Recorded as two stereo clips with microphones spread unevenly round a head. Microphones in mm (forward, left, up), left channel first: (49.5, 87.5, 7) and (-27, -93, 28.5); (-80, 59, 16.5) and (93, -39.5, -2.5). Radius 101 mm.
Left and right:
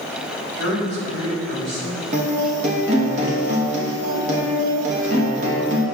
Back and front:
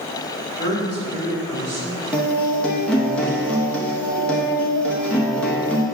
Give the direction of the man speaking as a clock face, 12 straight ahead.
3 o'clock.